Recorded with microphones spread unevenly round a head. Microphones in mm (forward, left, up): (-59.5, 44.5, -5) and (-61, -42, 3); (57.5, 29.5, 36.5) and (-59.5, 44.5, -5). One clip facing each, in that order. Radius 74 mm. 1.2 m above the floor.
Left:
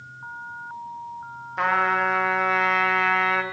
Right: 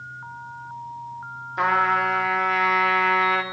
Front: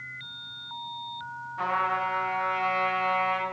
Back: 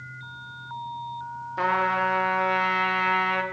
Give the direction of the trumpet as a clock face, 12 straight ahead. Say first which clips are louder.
Right 1 dB, back 4 dB; 6 o'clock.